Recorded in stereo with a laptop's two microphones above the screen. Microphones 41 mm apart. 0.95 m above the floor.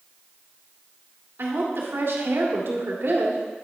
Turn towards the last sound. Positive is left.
turn(degrees=-70)  # may be behind; listen again after turning